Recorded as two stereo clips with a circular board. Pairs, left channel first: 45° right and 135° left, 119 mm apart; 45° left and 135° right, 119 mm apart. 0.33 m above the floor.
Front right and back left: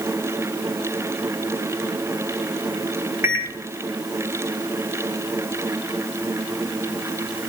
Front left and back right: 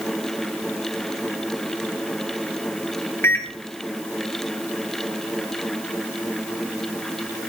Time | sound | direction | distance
3.2 | a microwave | 90° left | 0.9 m